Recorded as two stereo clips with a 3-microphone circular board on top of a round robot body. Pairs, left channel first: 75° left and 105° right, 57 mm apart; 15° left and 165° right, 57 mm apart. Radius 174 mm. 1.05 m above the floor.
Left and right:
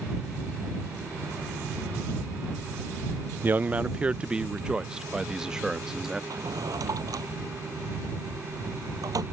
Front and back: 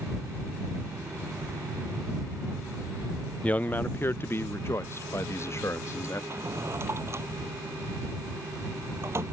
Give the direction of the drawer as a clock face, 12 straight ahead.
4 o'clock.